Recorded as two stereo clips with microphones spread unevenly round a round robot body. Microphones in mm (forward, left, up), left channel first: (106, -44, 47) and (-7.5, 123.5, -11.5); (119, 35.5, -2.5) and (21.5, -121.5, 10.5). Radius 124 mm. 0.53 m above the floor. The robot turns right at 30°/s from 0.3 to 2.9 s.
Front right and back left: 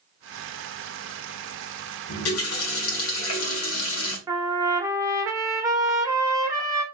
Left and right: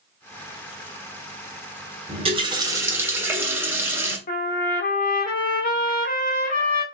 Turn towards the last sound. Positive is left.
turn(degrees=70)